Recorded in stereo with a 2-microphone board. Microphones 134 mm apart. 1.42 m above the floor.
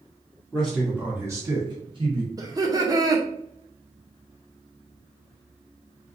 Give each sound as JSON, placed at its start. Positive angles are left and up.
{"t": 0.5, "sound": "a man speaking", "side_deg": 10, "distance_m": 0.9}
{"t": 2.4, "sound": "laughter", "side_deg": -25, "distance_m": 0.6}